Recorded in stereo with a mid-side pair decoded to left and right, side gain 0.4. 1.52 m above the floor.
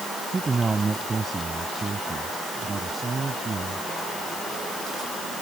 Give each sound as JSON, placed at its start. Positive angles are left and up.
{"t": 0.3, "sound": "a man speaking", "azimuth_deg": -30}